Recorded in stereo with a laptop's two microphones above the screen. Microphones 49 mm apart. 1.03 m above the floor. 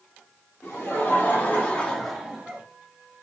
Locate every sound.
0.6 s laughter: 55° left (ahead or behind), 1.4 m; by 2.6 s 25° right (ahead or behind), 0.8 m